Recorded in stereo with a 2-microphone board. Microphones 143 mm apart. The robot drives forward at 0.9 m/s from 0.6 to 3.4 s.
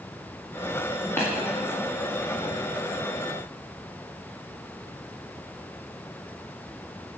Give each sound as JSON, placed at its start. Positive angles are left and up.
{"t": 1.2, "sound": "tapping", "side_deg": 15, "distance_m": 5.5}